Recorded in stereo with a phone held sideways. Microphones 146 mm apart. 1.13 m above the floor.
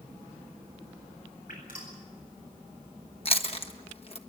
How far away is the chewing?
About 1.3 m.